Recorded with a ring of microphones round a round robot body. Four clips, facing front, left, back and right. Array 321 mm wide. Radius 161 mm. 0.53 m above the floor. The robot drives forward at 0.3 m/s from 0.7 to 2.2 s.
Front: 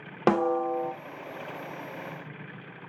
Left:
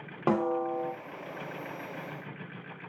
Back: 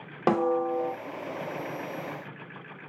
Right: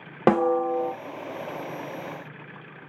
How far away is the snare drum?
About 0.5 m.